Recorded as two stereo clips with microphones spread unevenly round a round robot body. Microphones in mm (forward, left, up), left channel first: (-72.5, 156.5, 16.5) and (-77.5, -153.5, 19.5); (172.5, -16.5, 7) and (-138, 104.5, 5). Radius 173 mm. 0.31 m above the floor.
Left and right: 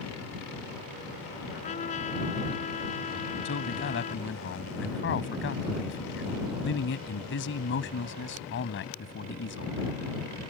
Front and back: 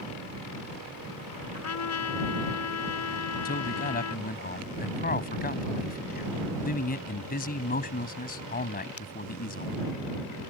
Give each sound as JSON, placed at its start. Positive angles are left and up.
{"t": 1.5, "sound": "a trumpet", "azimuth_deg": 20}
{"t": 3.5, "sound": "a man speaking", "azimuth_deg": 40}